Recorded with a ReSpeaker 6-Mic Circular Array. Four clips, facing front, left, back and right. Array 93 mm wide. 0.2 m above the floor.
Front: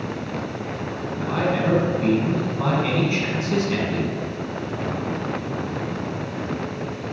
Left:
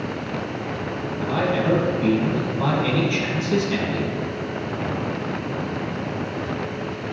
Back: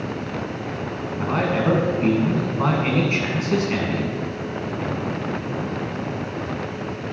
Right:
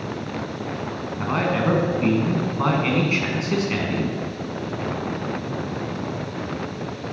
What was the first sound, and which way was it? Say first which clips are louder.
A man speaking: even, back 1 dB; 120° right.